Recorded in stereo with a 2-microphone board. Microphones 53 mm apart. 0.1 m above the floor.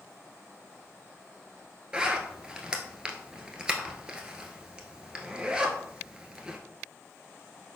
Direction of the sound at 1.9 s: 15° right (ahead or behind).